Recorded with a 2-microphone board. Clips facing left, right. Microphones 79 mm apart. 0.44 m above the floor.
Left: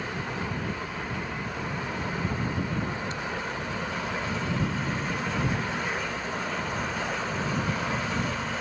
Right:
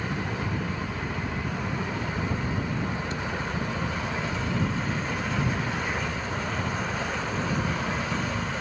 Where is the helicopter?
70° right (ahead or behind).